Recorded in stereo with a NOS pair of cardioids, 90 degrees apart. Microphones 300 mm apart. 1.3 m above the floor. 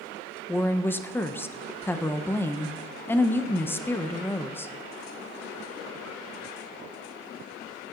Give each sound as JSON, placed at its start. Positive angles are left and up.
{"t": 0.5, "sound": "a woman speaking", "azimuth_deg": 10, "distance_m": 0.6}